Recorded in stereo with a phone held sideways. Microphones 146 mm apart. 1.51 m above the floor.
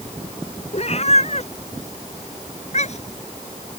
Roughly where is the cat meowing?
Left.